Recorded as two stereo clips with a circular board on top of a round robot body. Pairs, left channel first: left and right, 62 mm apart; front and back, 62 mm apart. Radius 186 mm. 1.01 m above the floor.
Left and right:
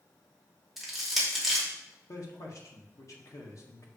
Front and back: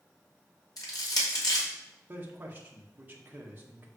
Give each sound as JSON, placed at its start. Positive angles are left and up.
{"t": 0.8, "sound": "crushing", "azimuth_deg": -5, "distance_m": 2.5}
{"t": 2.1, "sound": "a man speaking", "azimuth_deg": 120, "distance_m": 1.8}